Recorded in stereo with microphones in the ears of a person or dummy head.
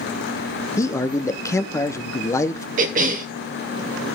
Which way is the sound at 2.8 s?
40° right (ahead or behind).